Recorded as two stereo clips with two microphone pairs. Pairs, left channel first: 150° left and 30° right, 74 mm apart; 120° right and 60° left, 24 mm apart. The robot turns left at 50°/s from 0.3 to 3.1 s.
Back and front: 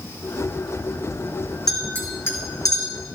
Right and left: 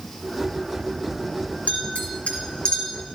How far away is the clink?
About 3.5 m.